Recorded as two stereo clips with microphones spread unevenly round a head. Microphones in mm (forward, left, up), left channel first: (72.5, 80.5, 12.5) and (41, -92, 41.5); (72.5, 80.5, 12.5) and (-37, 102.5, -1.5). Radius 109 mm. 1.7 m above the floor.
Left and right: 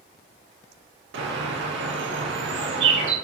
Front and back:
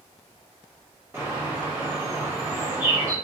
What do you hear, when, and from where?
1.1 s a bird: 110° right, 0.8 m